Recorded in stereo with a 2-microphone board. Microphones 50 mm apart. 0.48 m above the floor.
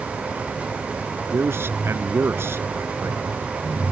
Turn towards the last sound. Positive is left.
turn(degrees=-55)  # may be behind; listen again after turning